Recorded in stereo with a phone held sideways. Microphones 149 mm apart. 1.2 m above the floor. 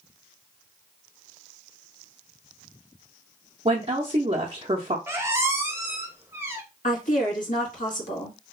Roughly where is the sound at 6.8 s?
Left.